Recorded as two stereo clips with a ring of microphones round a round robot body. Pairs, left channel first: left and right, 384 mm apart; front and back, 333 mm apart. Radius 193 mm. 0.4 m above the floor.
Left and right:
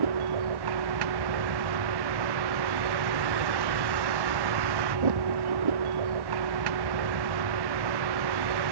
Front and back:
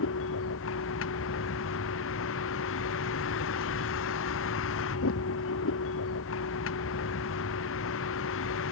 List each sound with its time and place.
0.0 s a vehicle: 60° right